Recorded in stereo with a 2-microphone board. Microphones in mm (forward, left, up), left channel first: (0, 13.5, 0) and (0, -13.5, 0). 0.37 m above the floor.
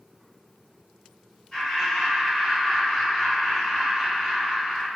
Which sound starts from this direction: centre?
Laughter, at 1.5 s.